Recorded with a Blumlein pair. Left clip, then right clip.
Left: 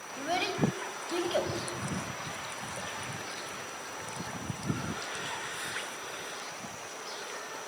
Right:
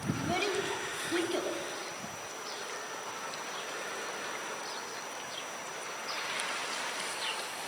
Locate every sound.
0.2 s a child speaking: 65° left, 4 m